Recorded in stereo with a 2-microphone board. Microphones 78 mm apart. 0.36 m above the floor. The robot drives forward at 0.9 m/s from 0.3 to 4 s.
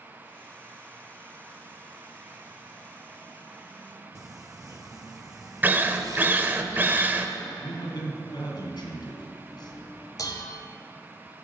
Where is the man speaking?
70° left (ahead or behind), 2.5 m.